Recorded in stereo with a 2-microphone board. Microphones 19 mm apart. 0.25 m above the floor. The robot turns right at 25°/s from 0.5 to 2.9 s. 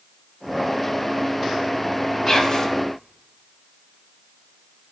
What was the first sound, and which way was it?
Whispering, 35° left (ahead or behind).